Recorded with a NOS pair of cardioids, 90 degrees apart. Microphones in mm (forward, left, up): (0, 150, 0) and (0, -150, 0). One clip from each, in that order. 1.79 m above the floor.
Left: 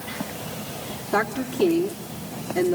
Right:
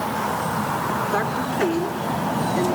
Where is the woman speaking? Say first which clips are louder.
Right 2 dB; 20° left, 3.5 m.